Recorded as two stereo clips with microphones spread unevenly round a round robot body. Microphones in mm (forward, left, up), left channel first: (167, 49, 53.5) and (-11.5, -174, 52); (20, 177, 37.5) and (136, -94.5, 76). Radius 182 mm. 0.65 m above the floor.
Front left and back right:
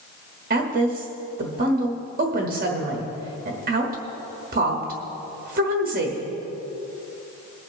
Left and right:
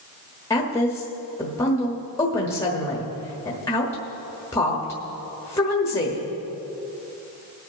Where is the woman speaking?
175° right, 1.2 m.